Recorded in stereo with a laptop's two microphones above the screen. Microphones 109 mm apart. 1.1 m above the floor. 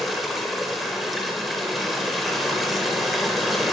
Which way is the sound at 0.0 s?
Centre (ahead or behind).